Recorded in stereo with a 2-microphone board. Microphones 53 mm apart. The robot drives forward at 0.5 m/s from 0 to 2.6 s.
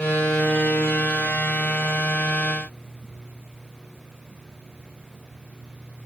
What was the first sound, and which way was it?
Only background noise.